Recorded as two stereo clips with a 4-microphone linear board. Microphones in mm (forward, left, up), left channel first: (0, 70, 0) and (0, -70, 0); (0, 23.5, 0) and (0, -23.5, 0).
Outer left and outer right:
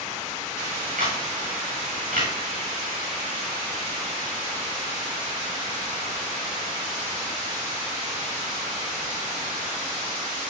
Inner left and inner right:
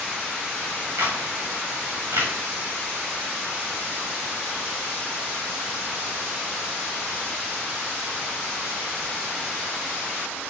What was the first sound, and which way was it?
A camera shutter, 80° right.